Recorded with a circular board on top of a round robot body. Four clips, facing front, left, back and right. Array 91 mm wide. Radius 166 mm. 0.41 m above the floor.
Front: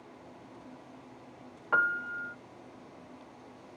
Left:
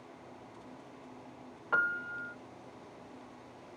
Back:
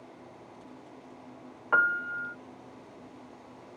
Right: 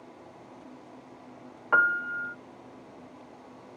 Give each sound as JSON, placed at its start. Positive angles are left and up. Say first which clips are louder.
{"t": 1.7, "sound": "a piano", "louder": "right 8 dB, back 3 dB", "azimuth_deg": -110}